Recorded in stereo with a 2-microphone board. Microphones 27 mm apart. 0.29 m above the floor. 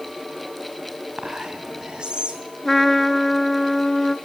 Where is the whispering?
30° right (ahead or behind), 2.5 m.